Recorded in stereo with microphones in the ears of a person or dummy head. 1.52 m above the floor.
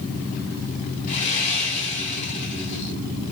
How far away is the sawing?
About 3 m.